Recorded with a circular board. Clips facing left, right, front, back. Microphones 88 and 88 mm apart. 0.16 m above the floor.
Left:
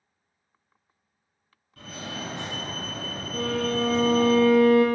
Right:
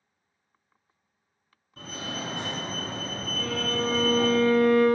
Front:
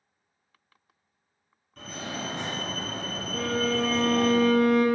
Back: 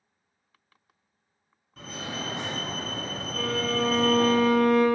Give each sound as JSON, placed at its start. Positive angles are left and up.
{"t": 1.8, "sound": "a fire alarm", "azimuth_deg": -110, "distance_m": 2.0}
{"t": 3.3, "sound": "a violin", "azimuth_deg": 90, "distance_m": 1.1}